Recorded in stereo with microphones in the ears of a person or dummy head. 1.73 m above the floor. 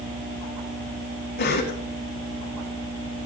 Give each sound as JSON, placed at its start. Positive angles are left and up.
{"t": 1.4, "sound": "a cough", "side_deg": 50, "distance_m": 4.0}